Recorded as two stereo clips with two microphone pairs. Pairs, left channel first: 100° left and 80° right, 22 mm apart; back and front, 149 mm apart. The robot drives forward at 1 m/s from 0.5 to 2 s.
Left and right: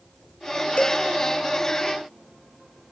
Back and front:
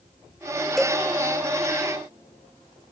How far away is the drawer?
No drawer in this recording.